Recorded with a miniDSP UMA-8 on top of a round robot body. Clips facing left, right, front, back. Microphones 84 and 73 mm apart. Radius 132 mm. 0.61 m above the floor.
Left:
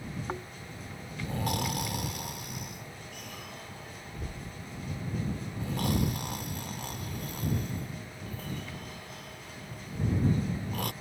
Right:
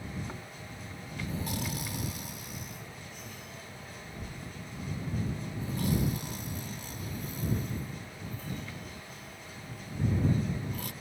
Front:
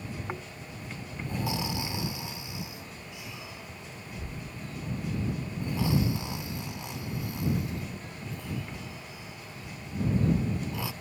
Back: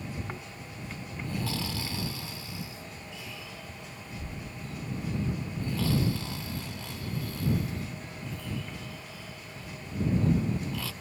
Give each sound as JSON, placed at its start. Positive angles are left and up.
{"t": 0.3, "sound": "snoring", "azimuth_deg": 70}